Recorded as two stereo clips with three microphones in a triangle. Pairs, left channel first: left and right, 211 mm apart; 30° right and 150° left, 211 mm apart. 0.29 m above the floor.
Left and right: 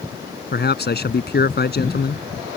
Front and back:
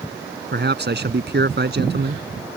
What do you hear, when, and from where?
0.5 s a man speaking: 120° left